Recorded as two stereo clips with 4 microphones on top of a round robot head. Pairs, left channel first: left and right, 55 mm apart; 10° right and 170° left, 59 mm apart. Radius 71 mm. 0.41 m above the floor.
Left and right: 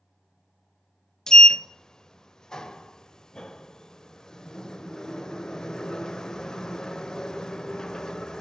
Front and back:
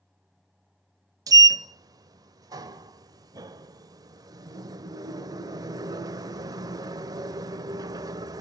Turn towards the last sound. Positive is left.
turn(degrees=170)